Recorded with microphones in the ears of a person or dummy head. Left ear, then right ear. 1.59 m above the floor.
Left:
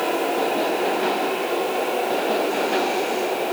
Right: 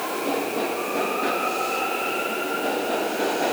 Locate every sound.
Only background noise.